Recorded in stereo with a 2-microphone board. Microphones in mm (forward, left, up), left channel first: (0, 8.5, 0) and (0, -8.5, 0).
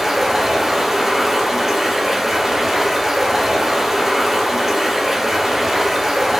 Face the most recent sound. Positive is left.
turn(degrees=-25)  # may be behind; listen again after turning